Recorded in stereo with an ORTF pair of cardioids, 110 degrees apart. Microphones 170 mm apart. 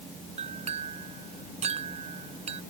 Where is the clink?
40° right.